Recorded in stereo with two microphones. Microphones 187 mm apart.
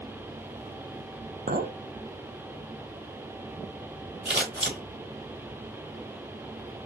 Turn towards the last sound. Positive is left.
turn(degrees=-75)  # may be behind; listen again after turning